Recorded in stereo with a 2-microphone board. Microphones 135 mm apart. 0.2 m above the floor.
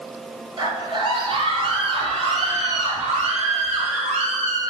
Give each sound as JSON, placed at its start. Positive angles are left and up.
{"t": 0.6, "sound": "a scream", "side_deg": -35, "distance_m": 3.0}